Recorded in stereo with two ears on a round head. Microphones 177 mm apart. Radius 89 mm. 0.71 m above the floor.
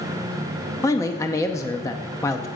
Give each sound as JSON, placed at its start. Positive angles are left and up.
{"t": 0.8, "sound": "a man speaking", "side_deg": 15, "distance_m": 0.6}